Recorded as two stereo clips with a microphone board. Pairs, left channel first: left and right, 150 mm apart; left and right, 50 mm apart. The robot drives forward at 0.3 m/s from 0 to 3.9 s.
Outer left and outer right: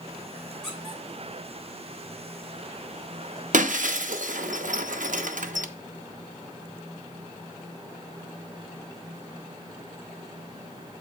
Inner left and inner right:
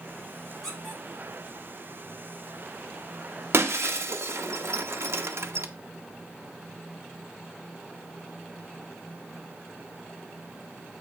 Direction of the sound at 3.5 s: 65° right (ahead or behind).